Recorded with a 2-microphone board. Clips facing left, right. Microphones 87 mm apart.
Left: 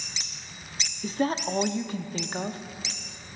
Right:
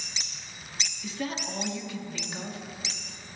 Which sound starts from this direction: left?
A woman speaking, at 1.0 s.